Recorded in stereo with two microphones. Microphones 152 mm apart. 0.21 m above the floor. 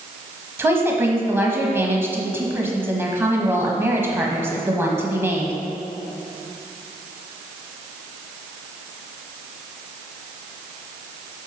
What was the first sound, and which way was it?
A woman speaking, 15° right (ahead or behind).